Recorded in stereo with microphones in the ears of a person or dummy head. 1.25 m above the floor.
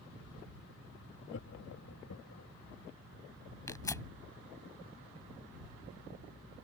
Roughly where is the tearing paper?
Centre.